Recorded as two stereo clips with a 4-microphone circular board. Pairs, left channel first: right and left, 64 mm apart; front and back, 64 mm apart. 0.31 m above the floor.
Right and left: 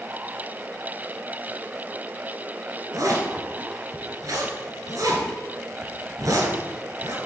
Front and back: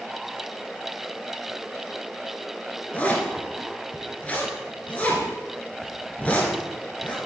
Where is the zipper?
70° left, 1.7 m.